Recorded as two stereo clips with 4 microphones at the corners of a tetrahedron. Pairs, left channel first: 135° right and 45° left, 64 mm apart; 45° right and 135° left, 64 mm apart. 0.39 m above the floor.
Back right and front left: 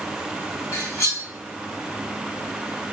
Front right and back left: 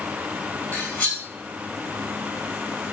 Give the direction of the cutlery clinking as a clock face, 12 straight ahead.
4 o'clock.